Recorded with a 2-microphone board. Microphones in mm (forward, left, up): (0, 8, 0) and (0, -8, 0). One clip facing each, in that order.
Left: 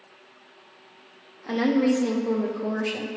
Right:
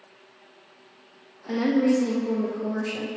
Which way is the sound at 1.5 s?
20° left (ahead or behind).